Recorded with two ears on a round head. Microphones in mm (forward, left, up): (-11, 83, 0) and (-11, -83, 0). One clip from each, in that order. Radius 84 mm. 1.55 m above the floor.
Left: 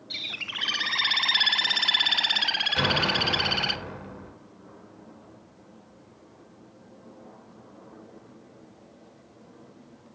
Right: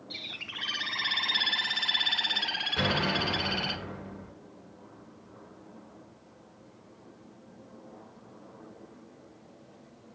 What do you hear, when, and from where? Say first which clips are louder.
0.1 s a bird: left 6 dB; 25° left (ahead or behind), 0.6 m
2.8 s an explosion: left 4 dB; 70° left (ahead or behind), 4.5 m